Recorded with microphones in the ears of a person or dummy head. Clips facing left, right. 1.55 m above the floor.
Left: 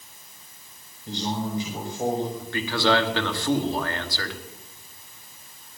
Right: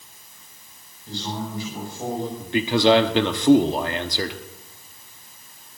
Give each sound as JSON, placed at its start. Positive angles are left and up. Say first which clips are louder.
{"t": 1.1, "sound": "a man speaking", "louder": "left 2 dB", "side_deg": 20, "distance_m": 5.0}
{"t": 2.4, "sound": "a man speaking", "louder": "right 6 dB", "side_deg": -20, "distance_m": 1.1}